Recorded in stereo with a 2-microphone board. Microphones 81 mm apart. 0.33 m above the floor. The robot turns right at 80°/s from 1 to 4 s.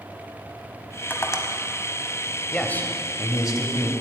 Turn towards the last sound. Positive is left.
turn(degrees=135)